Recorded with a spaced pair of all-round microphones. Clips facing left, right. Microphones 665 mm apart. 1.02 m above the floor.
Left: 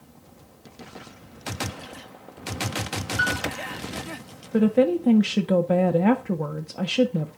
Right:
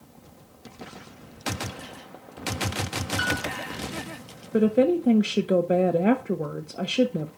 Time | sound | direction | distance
3.2 | a piano | 45° right (ahead or behind) | 5 m
4.5 | a woman speaking | 30° left (ahead or behind) | 0.6 m